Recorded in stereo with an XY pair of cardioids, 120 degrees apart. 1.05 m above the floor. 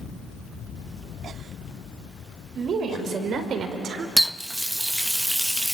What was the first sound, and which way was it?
A woman speaking, 55° right.